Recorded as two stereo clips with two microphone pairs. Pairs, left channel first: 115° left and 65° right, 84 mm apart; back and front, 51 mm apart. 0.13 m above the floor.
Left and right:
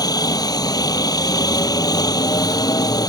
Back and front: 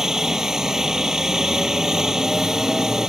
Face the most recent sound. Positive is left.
turn(degrees=80)